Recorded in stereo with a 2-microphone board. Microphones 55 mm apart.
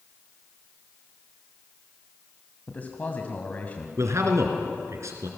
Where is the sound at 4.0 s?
60° right (ahead or behind), 3 m.